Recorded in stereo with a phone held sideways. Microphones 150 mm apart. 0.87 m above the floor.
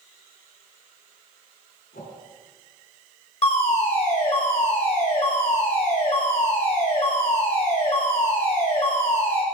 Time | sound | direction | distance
1.9 | a whoosh | 85° left | 4 m
3.4 | a fire alarm | 45° left (ahead or behind) | 6.5 m